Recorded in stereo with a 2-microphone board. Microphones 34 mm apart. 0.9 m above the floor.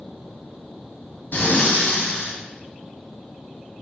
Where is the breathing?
65° left (ahead or behind), 2.5 m.